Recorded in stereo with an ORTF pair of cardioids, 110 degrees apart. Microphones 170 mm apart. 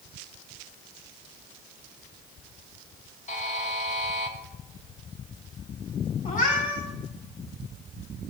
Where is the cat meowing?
50° left, 6 m.